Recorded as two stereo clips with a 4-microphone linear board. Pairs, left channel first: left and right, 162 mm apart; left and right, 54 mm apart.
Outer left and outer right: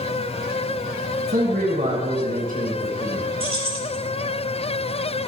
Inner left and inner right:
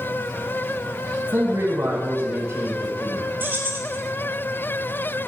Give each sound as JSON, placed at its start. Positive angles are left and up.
{"t": 1.3, "sound": "a man speaking", "side_deg": -55, "distance_m": 2.5}
{"t": 3.4, "sound": "keys jangling", "side_deg": -35, "distance_m": 4.5}